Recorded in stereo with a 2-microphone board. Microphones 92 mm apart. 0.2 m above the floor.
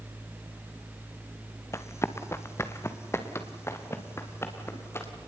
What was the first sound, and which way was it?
Running footsteps, 30° left (ahead or behind).